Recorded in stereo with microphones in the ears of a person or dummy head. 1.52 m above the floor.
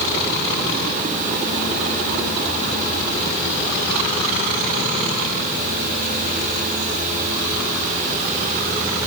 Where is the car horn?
No car horn in this recording.